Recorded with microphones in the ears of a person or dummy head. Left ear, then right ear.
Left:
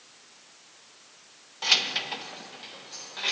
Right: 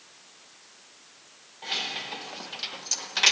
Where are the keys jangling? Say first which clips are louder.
Left 7 dB; 50° left (ahead or behind), 0.8 m; by 3.3 s 70° right (ahead or behind), 1.1 m.